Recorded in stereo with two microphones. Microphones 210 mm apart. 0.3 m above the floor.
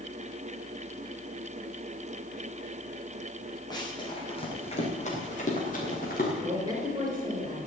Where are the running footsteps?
20° left (ahead or behind), 4.5 m; by 6.3 s 45° left (ahead or behind), 5.5 m.